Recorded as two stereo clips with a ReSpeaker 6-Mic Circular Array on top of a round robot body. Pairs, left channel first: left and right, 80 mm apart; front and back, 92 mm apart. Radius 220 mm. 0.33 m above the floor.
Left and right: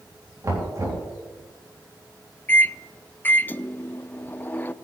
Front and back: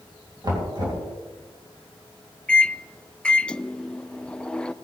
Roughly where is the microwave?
Ahead left.